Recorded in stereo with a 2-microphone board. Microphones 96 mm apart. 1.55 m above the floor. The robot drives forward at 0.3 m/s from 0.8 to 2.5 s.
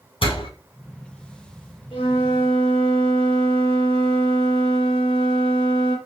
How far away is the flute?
About 6 m.